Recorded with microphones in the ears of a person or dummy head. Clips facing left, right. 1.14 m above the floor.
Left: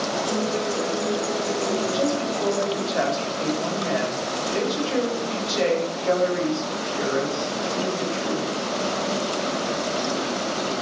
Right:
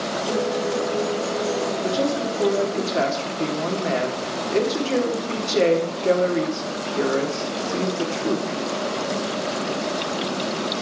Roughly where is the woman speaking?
Right.